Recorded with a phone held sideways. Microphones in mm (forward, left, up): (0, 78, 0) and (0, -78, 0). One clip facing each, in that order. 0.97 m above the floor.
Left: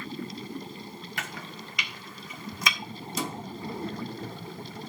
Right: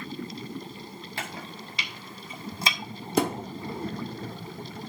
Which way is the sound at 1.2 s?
30° right (ahead or behind).